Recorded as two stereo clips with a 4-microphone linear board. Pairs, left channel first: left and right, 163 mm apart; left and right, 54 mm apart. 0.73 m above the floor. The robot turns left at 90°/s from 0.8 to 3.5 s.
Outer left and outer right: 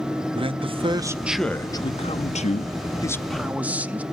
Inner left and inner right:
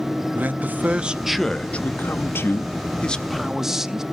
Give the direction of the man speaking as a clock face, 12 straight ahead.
4 o'clock.